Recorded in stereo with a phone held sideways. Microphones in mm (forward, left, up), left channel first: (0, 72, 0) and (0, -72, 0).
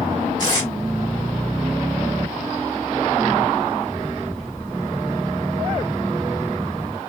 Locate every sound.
0.4 s tape being pulled: 30° left (ahead or behind), 1.9 m